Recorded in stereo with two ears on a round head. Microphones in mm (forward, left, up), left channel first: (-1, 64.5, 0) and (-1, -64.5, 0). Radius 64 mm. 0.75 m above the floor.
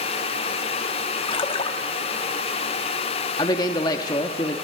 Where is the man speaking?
25° left (ahead or behind), 0.9 m.